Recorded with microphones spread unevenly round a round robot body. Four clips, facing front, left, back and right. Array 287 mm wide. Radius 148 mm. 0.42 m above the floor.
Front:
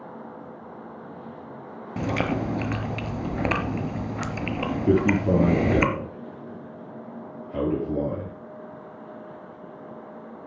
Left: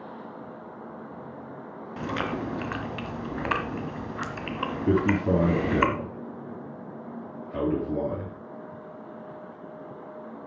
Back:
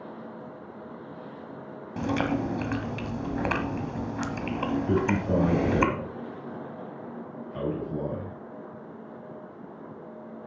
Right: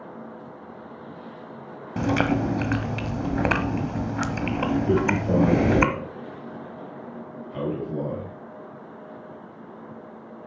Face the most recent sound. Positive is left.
turn(degrees=25)